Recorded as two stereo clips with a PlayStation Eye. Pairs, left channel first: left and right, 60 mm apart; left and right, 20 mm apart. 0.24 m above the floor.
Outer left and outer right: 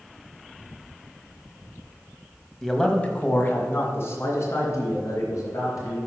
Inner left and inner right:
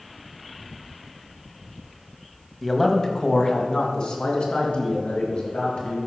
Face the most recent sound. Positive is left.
turn(degrees=55)  # may be behind; listen again after turning